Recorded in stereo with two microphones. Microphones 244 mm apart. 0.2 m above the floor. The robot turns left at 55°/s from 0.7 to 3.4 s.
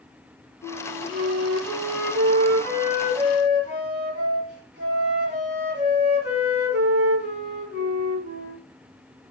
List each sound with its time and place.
0.6 s a flute: 35° left, 2.5 m; by 8.6 s 115° right, 2.5 m